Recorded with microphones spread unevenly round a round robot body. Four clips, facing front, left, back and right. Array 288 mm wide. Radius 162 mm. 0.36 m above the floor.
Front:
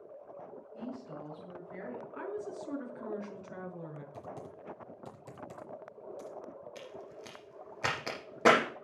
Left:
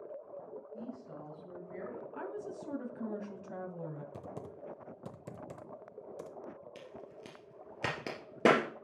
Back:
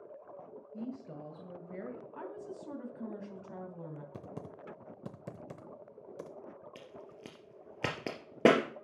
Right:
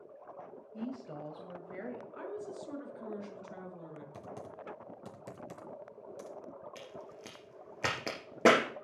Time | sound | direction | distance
0.7 | a woman speaking | 155° right | 2 m
2.1 | a woman speaking | 105° left | 3 m
4.1 | typing on a keyboard | 160° left | 0.8 m
6.8 | a crack | straight behind | 3 m